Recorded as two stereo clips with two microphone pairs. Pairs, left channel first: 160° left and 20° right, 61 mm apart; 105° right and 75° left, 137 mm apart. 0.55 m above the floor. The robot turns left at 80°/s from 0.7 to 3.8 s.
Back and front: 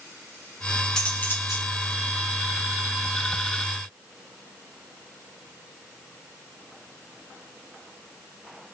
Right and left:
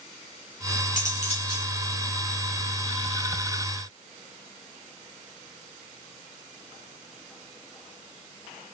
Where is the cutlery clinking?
120° right, 3.5 m; by 1.7 s straight behind, 3.5 m.